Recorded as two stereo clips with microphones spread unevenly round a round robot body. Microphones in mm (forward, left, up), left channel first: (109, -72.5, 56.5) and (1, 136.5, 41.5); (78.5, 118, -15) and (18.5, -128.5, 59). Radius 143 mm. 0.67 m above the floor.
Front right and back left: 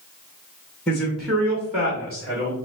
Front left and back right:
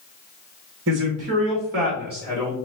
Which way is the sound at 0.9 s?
150° right.